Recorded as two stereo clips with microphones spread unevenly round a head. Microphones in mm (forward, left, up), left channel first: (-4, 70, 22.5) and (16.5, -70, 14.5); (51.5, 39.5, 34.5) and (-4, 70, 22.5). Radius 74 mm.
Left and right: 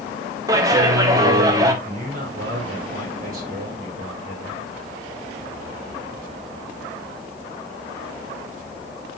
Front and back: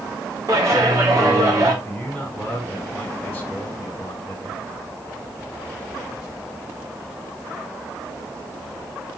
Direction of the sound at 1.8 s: 120° right.